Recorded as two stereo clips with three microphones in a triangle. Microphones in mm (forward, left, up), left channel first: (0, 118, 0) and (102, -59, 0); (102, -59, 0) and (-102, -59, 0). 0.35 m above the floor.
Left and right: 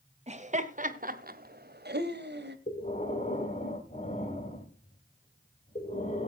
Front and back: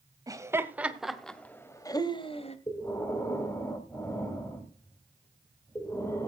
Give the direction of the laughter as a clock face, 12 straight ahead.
4 o'clock.